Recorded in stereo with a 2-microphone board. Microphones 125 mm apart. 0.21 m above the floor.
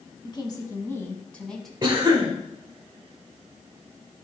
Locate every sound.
0.2 s a woman speaking: 40° left (ahead or behind), 1.3 m; by 1.7 s centre (ahead or behind), 1.2 m
1.8 s a cough: 25° right (ahead or behind), 1.2 m